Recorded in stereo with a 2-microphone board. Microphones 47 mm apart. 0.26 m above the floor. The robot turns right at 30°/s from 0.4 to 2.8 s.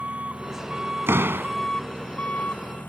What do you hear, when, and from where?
0.0 s an engine running: 25° right; by 2.9 s 45° left
1.1 s a door slam: 60° right (ahead or behind); by 1.6 s 55° right (ahead or behind)